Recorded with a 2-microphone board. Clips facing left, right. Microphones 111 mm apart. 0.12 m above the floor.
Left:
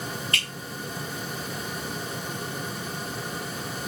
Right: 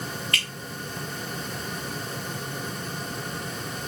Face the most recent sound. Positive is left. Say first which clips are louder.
# even
turn(degrees=30)  # may be behind; listen again after turning